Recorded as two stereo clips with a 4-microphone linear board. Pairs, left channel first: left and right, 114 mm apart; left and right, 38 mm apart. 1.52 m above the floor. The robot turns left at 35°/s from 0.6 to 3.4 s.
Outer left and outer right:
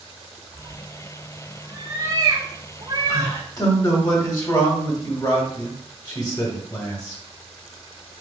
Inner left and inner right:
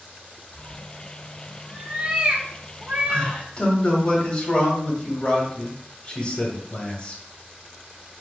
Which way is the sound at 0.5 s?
5° left (ahead or behind).